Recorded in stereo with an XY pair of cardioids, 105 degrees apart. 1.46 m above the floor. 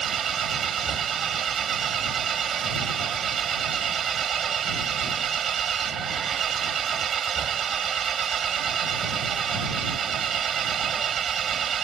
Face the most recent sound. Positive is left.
turn(degrees=-55)